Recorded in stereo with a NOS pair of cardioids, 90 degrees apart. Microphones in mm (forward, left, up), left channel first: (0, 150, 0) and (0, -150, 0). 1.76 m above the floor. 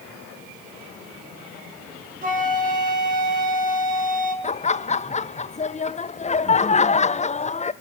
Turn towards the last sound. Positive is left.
turn(degrees=20)